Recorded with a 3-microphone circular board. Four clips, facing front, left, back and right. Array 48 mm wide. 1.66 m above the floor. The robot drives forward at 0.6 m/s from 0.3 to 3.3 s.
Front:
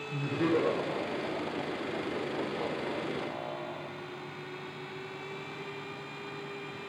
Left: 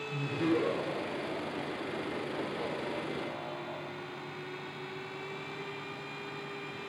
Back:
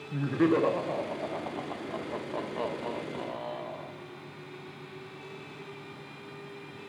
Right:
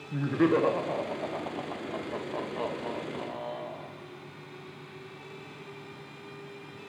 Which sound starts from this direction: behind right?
Laughter, at 0.1 s.